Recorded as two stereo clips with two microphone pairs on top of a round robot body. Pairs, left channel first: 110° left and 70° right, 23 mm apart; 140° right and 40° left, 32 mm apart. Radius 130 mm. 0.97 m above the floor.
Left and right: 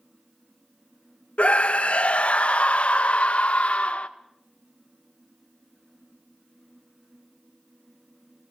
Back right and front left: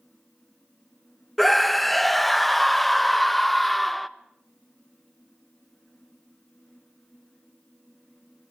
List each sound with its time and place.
1.4 s a scream: 135° left, 1.0 m